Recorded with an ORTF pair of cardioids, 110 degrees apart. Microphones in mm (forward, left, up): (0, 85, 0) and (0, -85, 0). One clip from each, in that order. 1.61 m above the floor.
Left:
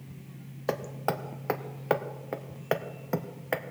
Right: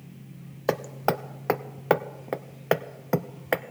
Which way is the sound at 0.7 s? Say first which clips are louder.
Right 5 dB; 25° right.